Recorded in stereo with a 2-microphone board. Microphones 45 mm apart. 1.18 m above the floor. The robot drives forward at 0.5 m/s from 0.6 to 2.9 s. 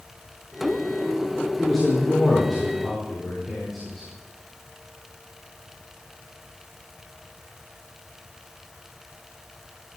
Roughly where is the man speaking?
Centre.